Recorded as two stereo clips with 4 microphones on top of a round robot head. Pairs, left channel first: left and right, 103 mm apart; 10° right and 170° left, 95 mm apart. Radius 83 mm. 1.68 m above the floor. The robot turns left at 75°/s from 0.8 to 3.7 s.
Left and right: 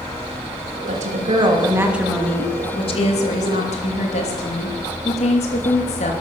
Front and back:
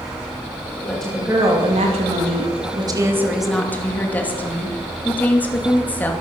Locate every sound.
0.9 s a woman speaking: 90° right, 2.5 m; by 6.1 s 60° left, 2.5 m